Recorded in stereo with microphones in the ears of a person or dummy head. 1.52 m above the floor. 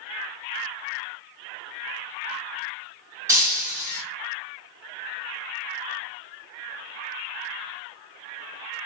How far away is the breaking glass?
About 2 m.